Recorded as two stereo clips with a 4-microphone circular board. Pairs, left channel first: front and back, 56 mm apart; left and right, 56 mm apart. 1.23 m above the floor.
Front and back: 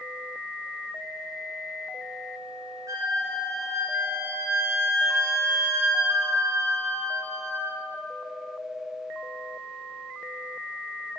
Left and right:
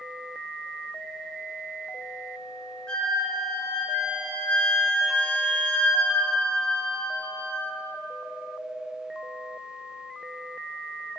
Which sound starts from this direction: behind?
A flute, at 2.9 s.